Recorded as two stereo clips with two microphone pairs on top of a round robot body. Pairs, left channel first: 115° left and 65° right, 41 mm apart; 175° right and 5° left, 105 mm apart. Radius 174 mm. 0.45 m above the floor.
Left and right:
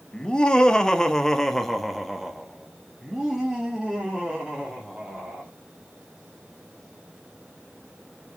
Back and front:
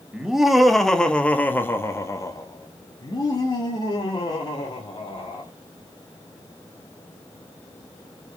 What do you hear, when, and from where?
0.1 s laughter: 85° left, 1.6 m; by 5.5 s 135° right, 2.5 m